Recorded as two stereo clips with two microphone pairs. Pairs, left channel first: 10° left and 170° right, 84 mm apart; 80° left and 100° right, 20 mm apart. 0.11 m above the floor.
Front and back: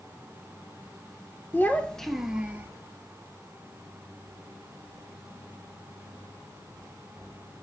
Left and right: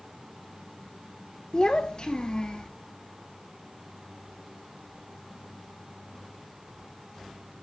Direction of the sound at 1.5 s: 60° left.